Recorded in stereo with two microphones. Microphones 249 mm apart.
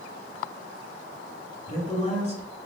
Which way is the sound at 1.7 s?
30° left (ahead or behind).